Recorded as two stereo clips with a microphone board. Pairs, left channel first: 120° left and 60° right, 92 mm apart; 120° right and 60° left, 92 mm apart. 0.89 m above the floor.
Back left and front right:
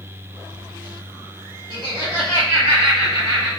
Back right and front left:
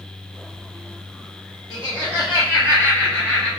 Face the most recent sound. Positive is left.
turn(degrees=-40)